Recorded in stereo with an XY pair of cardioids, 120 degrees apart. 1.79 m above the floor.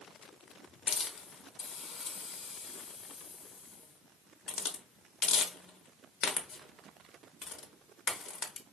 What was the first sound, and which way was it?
A hiss, 55° left.